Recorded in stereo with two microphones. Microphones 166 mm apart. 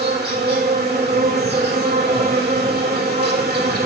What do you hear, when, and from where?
0.0 s an insect: 75° right (ahead or behind), 3 m